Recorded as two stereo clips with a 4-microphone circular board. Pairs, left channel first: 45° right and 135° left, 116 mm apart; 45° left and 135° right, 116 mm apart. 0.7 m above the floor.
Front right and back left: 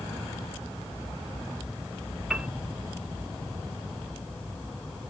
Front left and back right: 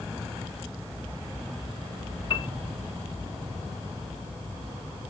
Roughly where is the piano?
Ahead left.